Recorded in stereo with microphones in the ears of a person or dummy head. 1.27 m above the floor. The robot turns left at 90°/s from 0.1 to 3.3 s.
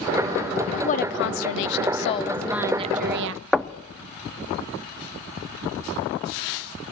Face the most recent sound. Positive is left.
turn(degrees=0)  # may be behind; listen again after turning